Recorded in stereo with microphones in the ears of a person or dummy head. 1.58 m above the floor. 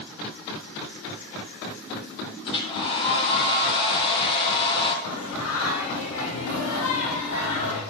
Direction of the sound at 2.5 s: 30° left (ahead or behind).